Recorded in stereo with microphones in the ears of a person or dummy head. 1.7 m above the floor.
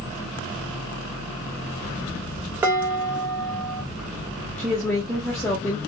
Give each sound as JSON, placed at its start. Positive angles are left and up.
{"t": 2.6, "sound": "dishes clattering", "side_deg": -15, "distance_m": 1.6}
{"t": 4.6, "sound": "a woman speaking", "side_deg": 10, "distance_m": 1.7}